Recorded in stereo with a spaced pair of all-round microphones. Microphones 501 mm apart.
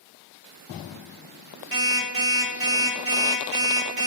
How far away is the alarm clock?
About 0.9 m.